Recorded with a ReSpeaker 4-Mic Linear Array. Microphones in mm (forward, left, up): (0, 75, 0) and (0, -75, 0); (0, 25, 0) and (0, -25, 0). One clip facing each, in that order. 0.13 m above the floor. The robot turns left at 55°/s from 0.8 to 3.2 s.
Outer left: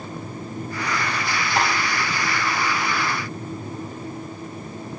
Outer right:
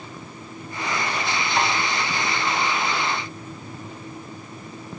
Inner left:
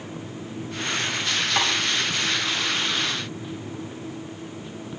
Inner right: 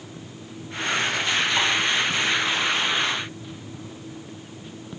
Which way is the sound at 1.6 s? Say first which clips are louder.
Outer left 1 dB, inner left 2 dB; 50° left (ahead or behind).